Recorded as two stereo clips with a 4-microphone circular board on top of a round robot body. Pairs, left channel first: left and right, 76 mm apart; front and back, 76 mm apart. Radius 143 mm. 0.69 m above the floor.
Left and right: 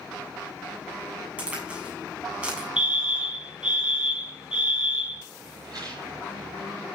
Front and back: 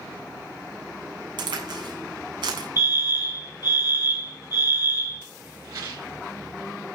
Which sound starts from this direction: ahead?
A fire alarm, at 2.8 s.